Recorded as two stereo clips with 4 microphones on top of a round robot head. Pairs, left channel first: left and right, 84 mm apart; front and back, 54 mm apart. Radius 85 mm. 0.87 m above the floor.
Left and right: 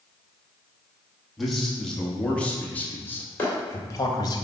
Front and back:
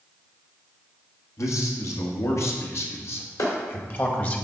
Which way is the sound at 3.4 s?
20° left.